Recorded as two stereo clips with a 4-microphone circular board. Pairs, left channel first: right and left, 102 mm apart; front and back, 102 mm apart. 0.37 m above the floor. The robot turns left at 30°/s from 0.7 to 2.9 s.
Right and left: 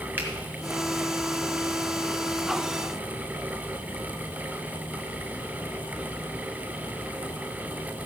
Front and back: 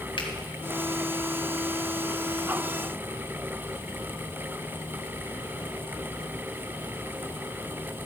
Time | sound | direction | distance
0.2 | a finger snap | 20° left | 2 m